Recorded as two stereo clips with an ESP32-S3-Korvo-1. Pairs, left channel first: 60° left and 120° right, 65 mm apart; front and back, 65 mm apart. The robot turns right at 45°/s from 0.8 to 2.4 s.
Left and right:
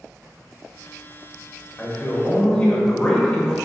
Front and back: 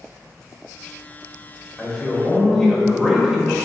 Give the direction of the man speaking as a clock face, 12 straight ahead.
9 o'clock.